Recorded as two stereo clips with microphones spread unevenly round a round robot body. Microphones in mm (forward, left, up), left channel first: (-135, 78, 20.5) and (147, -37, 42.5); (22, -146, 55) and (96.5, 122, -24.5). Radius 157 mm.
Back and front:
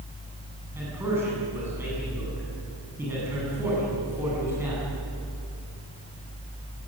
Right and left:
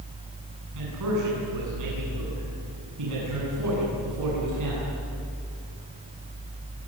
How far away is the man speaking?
About 9 m.